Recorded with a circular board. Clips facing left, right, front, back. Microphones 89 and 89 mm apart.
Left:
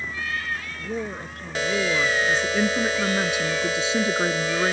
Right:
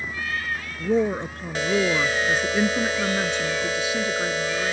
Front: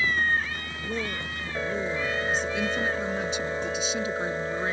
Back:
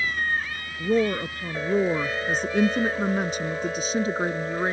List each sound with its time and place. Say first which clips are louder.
0.8 s a woman speaking: right 12 dB, back 11 dB; 140° right; by 4.8 s 125° left